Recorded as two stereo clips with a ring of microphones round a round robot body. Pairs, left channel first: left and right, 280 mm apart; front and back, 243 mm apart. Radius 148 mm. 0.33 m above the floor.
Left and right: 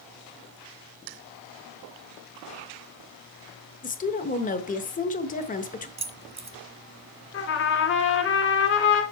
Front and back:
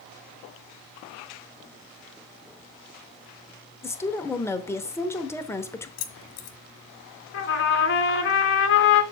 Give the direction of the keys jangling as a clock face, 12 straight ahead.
1 o'clock.